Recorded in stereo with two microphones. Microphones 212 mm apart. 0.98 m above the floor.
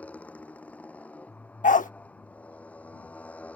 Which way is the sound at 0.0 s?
5° left (ahead or behind).